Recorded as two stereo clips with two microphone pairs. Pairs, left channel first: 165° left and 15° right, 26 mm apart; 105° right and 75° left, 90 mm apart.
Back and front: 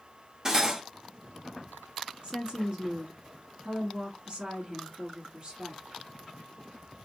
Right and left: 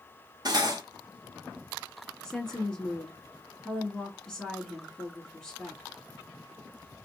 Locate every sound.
0.5 s cutlery clinking: 55° left, 0.7 m
2.2 s a woman speaking: 10° right, 1.4 m